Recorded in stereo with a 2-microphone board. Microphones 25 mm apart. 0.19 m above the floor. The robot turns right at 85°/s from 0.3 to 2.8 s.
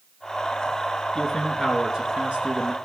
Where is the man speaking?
145° left, 2 m; by 2.8 s 75° right, 2 m.